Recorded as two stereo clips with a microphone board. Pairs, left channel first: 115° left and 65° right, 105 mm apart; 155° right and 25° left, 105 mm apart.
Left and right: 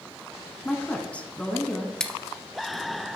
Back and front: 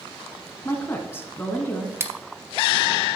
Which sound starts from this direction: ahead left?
Scissors, at 2.0 s.